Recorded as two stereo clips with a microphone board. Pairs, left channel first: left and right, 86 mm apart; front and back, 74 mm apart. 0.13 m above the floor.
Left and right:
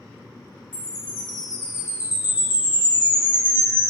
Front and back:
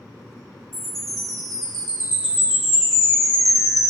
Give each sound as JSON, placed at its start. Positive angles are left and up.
{"t": 0.7, "sound": "a chime", "azimuth_deg": 85, "distance_m": 1.4}